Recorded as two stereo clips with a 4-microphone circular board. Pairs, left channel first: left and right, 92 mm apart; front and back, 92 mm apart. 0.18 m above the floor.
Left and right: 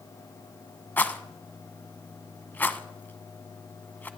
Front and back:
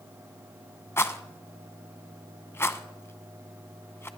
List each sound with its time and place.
1.0 s a rattle: 35° left, 0.8 m